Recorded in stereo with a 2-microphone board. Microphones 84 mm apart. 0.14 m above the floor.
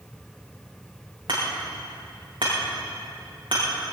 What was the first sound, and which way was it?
Hammering, 75° right (ahead or behind).